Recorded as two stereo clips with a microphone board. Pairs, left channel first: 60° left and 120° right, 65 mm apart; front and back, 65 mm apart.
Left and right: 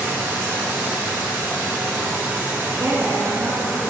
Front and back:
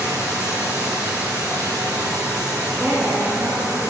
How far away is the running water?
About 3 m.